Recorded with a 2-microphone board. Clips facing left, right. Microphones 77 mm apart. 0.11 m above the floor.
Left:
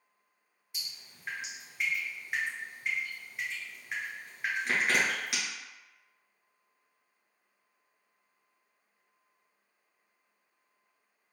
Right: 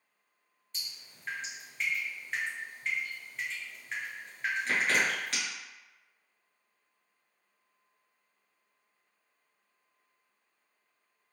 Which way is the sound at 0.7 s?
10° left (ahead or behind).